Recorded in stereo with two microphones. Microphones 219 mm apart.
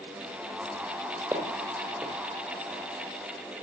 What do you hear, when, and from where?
1.3 s footsteps: 10° right (ahead or behind), 2.5 m